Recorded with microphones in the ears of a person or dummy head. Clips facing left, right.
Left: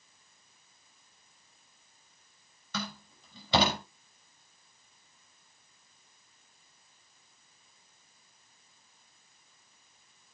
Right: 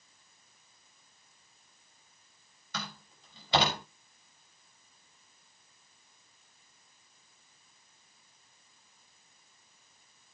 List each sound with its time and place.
2.7 s a door slam: 80° left, 6 m